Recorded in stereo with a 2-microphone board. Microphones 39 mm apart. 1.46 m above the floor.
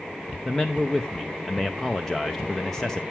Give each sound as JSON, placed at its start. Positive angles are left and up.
{"t": 0.5, "sound": "a man speaking", "side_deg": 10, "distance_m": 0.7}